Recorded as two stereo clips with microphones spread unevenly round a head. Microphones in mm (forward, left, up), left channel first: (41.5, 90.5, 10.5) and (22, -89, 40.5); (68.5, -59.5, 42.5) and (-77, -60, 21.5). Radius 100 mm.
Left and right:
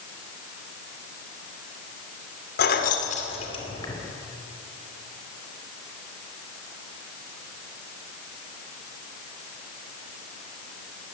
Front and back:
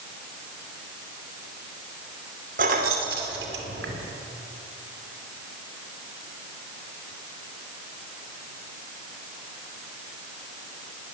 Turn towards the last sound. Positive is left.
turn(degrees=160)